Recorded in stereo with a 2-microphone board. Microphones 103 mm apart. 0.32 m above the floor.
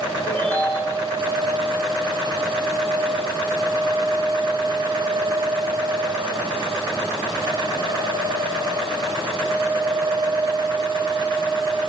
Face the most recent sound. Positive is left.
turn(degrees=15)  # may be behind; listen again after turning